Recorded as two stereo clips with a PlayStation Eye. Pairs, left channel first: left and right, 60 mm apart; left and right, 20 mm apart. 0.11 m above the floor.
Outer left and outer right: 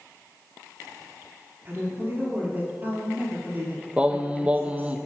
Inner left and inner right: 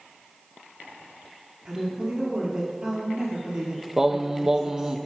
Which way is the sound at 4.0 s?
20° right (ahead or behind).